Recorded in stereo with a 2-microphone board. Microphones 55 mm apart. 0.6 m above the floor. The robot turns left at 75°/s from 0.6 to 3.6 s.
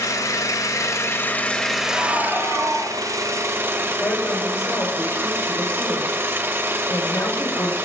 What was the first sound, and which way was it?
An engine running, 90° left.